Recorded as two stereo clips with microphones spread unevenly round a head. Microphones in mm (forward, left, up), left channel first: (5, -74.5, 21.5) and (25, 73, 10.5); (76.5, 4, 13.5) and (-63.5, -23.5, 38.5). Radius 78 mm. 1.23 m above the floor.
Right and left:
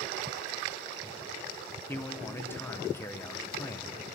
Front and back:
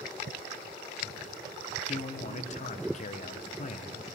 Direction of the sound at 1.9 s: 20° right.